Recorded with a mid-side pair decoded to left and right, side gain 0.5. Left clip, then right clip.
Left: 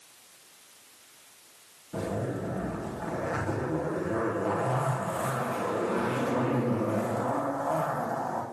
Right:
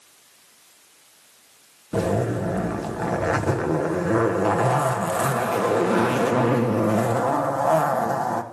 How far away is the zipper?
About 1.1 m.